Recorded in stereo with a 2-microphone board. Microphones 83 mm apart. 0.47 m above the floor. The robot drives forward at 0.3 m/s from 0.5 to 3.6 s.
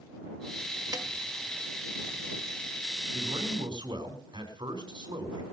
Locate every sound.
0.9 s a snare drum: 45° right (ahead or behind), 1.8 m
3.1 s a man speaking: 70° right (ahead or behind), 5 m